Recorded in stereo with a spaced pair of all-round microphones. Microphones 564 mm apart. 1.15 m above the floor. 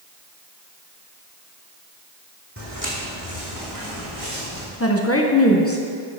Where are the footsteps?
25° right (ahead or behind), 2 m; by 4.7 s 75° right (ahead or behind), 4 m.